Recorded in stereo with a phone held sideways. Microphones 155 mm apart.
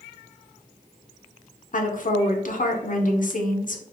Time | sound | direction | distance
1.7 | a woman speaking | 60° left (ahead or behind) | 0.6 m